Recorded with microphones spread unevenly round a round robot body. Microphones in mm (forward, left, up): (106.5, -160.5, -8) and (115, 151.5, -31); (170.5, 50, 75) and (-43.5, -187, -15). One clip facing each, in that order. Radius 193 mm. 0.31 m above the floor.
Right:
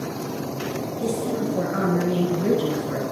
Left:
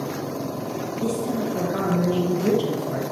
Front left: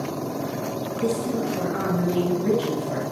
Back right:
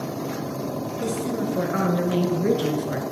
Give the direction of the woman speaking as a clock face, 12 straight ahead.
5 o'clock.